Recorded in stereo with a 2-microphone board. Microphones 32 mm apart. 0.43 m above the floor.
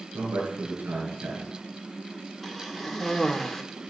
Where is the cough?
Centre (ahead or behind), 0.8 m.